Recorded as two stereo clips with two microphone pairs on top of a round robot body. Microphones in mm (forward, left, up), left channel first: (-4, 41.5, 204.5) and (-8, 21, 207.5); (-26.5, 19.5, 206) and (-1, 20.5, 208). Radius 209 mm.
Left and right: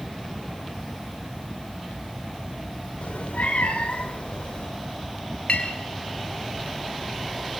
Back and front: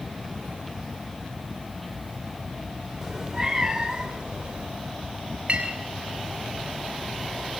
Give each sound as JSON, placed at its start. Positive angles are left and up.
{"t": 3.0, "sound": "a cat meowing", "azimuth_deg": 85, "distance_m": 3.0}
{"t": 5.5, "sound": "a clink", "azimuth_deg": 55, "distance_m": 7.0}